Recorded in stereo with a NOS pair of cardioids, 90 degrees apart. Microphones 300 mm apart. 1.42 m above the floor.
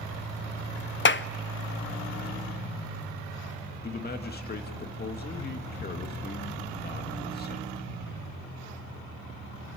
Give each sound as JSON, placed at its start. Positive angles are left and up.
{"t": 1.1, "sound": "a clap", "azimuth_deg": 40, "distance_m": 0.5}
{"t": 3.8, "sound": "a man speaking", "azimuth_deg": 30, "distance_m": 2.0}